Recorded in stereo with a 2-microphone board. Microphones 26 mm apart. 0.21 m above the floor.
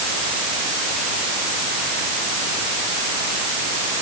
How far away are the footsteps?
No footsteps in this recording.